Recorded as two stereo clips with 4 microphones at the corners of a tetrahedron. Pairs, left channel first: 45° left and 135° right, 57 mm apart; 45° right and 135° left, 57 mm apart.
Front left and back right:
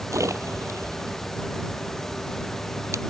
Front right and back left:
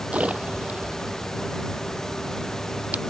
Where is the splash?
160° right.